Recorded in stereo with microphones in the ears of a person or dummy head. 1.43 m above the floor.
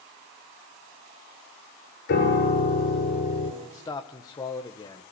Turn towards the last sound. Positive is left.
turn(degrees=25)  # may be behind; listen again after turning